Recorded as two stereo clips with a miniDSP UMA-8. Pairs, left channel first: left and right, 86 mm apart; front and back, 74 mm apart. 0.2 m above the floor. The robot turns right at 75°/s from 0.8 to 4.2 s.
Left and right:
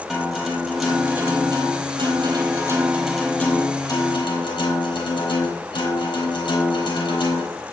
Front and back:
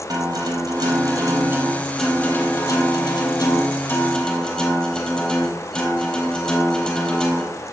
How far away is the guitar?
About 3.5 m.